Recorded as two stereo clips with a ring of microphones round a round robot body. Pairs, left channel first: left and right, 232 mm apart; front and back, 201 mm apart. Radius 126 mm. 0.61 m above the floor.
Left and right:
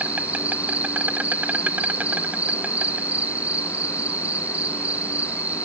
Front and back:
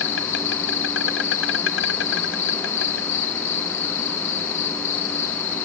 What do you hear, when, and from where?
0.0 s an insect: 5° right